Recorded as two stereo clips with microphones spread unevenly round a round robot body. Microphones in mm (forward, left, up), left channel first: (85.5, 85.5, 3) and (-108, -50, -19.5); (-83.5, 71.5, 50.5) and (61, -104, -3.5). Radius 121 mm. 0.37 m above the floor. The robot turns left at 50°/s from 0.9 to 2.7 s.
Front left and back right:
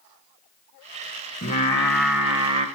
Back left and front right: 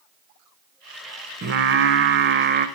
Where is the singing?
25° right, 0.6 m; by 2.7 s 90° right, 0.6 m.